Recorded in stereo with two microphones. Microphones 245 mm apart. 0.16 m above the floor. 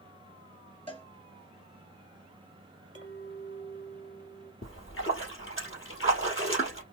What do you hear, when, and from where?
0.9 s a cowbell: 20° left (ahead or behind), 2.5 m
3.0 s a clink: 65° left (ahead or behind), 3 m
4.6 s a splash: 55° left (ahead or behind), 2.5 m